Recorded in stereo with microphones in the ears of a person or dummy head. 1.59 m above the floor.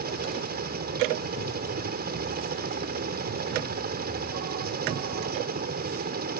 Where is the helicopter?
50° right (ahead or behind).